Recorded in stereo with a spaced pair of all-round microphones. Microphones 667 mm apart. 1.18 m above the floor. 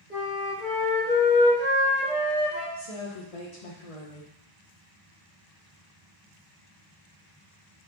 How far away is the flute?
About 2.0 m.